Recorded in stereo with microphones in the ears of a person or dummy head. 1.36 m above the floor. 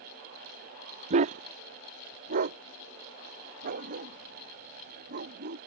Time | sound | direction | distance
1.1 | a dog barking | 35° right (ahead or behind) | ?